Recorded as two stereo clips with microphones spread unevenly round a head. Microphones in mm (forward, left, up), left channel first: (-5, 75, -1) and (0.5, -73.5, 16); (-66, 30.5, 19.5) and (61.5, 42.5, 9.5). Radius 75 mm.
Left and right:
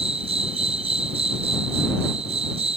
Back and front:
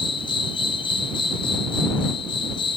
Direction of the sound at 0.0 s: 130° right.